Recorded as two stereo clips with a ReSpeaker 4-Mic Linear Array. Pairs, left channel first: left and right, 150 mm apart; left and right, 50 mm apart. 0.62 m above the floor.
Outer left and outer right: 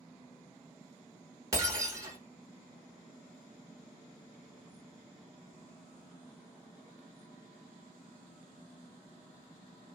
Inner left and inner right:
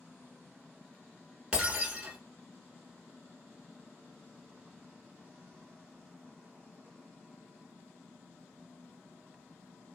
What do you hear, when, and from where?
1.5 s breaking glass: 25° right (ahead or behind), 1.0 m